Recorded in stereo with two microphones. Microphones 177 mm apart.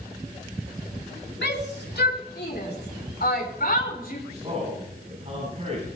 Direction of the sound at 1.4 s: 80° left.